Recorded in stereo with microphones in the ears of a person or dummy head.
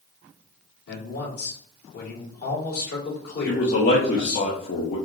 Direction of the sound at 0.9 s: 65° left (ahead or behind).